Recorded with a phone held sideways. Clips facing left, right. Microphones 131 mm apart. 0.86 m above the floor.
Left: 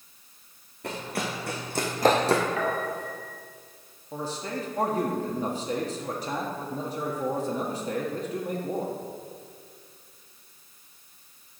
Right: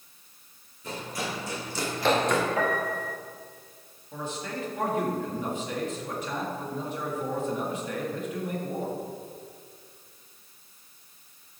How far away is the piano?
About 4 m.